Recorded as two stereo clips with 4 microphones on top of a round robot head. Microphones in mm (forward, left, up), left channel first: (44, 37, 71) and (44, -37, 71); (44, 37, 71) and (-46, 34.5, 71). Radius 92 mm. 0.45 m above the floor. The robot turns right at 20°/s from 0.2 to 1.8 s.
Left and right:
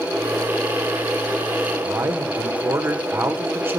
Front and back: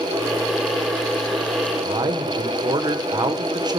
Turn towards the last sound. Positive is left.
turn(degrees=-145)